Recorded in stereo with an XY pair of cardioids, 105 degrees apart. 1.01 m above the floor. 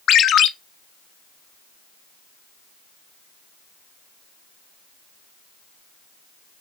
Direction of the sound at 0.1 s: 70° left.